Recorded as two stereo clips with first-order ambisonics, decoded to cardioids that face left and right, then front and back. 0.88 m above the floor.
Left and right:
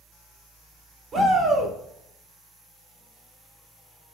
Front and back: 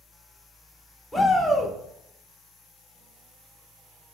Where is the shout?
80° right, 0.6 m.